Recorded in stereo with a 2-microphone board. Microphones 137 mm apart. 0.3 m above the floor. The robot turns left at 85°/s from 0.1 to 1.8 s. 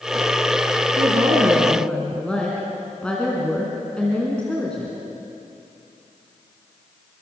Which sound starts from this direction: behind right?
A woman speaking, at 1.0 s.